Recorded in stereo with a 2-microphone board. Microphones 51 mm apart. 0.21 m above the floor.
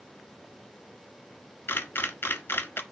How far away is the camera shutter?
About 0.6 m.